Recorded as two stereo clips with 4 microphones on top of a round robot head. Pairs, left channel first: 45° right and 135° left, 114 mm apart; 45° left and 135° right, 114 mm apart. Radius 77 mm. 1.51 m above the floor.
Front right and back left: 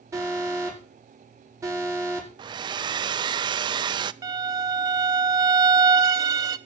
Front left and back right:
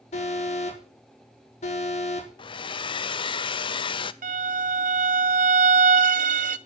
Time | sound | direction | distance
0.1 | an alarm | 75° left | 5 m
2.4 | a hair dryer | 90° left | 0.6 m
4.2 | a violin | 160° right | 0.5 m